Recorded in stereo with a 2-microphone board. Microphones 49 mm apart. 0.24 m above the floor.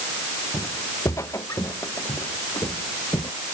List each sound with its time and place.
0.5 s footsteps: 85° left; by 3.3 s 80° left